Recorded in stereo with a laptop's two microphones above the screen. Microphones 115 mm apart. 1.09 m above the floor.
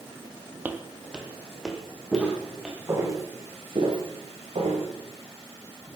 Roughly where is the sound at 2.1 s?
Centre.